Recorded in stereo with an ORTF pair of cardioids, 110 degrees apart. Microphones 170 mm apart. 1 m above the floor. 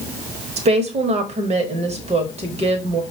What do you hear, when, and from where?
0.6 s a woman speaking: 40° right, 1.0 m